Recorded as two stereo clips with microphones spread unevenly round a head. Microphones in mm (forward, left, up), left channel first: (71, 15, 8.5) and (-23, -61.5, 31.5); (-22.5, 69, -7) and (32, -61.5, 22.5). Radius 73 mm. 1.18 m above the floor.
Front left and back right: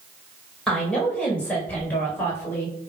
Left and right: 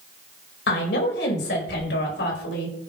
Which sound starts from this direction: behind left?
A woman speaking, at 0.7 s.